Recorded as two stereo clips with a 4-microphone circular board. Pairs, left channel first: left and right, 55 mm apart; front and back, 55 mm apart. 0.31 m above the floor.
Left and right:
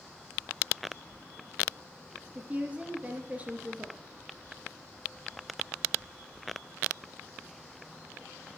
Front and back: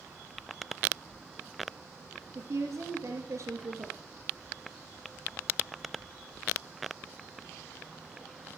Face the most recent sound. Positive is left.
turn(degrees=-155)